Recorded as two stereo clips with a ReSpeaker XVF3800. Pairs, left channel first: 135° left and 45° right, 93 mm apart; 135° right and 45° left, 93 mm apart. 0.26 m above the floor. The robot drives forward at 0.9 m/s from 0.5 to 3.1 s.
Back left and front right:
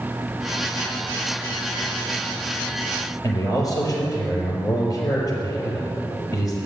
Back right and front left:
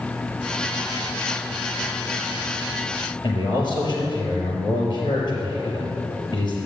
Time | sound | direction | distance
3.2 | a man speaking | 175° right | 5.5 m